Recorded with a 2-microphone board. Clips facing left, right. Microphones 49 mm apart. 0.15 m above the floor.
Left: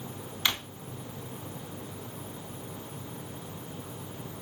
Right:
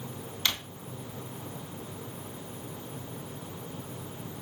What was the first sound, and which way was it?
A drawer, 15° left (ahead or behind).